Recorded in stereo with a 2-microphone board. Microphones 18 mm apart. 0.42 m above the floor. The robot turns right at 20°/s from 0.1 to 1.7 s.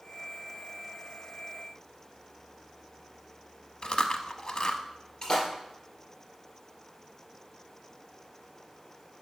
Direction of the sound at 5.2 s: 40° left (ahead or behind).